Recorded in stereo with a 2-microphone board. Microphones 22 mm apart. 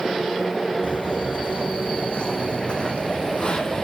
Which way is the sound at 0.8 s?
70° left (ahead or behind).